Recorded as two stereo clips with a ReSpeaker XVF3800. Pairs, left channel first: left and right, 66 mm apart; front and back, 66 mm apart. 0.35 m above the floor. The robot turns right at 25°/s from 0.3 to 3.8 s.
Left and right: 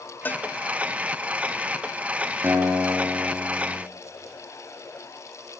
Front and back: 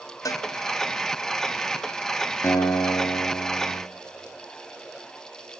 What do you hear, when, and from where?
0.2 s a cowbell: 30° left, 0.9 m; by 0.5 s 35° left, 0.9 m
2.4 s a guitar: 45° right, 5.5 m; by 3.8 s 10° right, 5.5 m